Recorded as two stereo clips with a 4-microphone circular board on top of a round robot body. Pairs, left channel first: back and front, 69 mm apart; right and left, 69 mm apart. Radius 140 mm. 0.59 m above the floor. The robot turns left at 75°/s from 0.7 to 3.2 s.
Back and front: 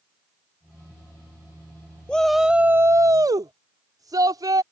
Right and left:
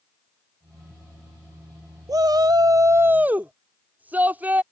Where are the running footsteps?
I don't hear running footsteps.